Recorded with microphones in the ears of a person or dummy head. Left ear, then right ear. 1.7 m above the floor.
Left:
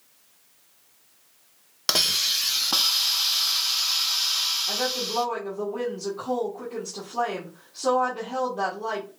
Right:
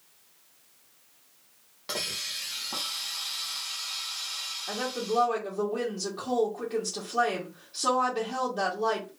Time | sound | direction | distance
1.9 | a hiss | 65° left (ahead or behind) | 0.6 m
4.7 | a woman speaking | 40° right (ahead or behind) | 1.3 m